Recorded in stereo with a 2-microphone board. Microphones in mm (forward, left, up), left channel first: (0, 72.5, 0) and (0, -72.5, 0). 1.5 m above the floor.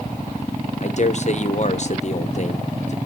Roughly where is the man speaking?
Left.